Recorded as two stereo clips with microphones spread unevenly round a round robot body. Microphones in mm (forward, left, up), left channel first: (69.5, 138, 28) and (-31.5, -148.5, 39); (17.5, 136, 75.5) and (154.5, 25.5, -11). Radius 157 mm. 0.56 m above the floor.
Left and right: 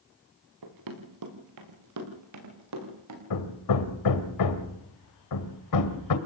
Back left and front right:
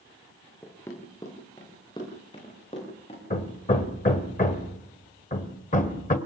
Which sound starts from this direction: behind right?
Running footsteps, at 0.6 s.